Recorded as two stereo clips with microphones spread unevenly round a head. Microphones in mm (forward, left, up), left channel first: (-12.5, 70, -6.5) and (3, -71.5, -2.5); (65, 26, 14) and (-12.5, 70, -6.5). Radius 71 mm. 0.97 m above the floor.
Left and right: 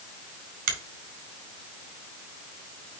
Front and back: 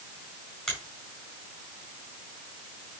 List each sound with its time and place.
0.7 s a finger snap: 115° right, 4.5 m